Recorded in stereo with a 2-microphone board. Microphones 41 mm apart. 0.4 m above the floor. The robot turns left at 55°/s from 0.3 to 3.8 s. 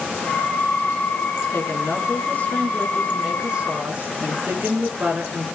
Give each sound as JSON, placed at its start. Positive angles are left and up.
{"t": 1.5, "sound": "a woman speaking", "azimuth_deg": 95, "distance_m": 6.0}